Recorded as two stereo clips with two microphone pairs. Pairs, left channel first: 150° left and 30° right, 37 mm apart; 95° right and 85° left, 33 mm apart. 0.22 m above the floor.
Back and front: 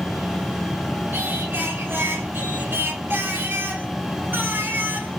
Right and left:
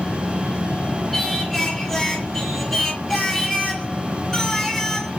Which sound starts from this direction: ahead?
Singing, at 1.1 s.